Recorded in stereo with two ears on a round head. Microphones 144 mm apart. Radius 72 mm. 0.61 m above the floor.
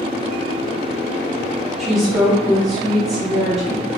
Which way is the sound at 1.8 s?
Centre (ahead or behind).